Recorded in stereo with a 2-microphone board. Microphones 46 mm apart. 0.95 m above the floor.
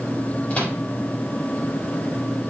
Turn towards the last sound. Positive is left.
turn(degrees=30)  # may be behind; listen again after turning